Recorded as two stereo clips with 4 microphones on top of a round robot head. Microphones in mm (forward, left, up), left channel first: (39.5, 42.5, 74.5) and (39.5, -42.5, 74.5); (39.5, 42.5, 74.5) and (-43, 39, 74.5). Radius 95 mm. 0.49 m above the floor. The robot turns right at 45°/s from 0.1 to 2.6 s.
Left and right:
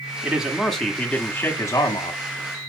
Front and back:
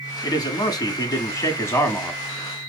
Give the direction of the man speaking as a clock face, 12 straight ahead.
1 o'clock.